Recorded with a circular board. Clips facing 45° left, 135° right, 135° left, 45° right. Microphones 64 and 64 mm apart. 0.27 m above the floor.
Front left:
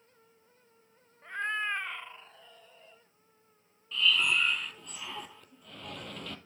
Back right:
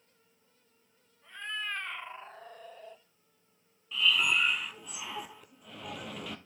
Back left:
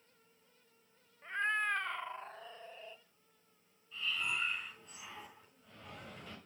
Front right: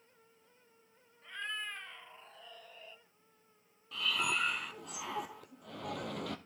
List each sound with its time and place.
1.2 s a cat meowing: 80° left, 1.0 m; by 3.0 s 155° right, 1.4 m
3.9 s breathing: 50° right, 1.3 m